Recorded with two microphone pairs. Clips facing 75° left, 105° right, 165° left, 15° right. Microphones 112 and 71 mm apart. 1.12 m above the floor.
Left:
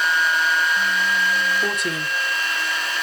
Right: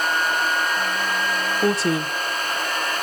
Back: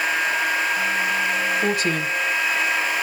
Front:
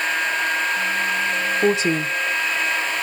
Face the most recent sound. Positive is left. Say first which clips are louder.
# right 5 dB, front 3 dB
turn(degrees=-60)